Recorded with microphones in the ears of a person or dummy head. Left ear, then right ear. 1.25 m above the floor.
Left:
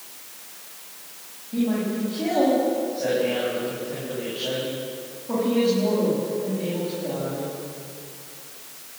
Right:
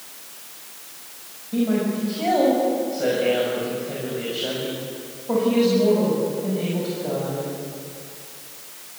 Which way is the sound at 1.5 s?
75° right (ahead or behind).